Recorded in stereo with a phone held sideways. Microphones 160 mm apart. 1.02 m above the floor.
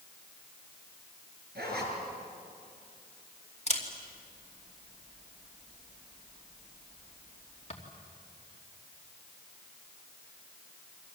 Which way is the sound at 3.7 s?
45° left (ahead or behind).